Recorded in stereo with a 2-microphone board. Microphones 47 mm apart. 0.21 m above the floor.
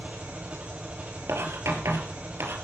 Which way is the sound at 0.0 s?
30° right (ahead or behind).